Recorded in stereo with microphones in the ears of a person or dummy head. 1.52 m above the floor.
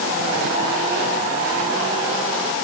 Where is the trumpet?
I don't hear a trumpet.